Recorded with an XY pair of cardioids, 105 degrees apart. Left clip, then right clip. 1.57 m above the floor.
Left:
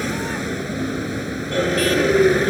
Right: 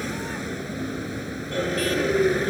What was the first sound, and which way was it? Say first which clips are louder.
A vehicle: left 6 dB; 35° left.